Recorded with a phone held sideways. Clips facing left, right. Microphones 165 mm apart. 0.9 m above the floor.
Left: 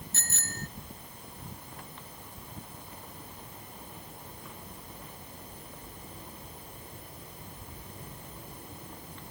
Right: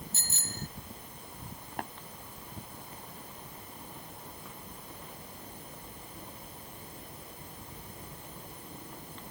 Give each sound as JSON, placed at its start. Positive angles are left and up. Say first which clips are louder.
{"t": 0.1, "sound": "a bicycle bell", "louder": "left 1 dB", "side_deg": 75}
{"t": 1.8, "sound": "tapping", "louder": "right 9 dB", "side_deg": -85}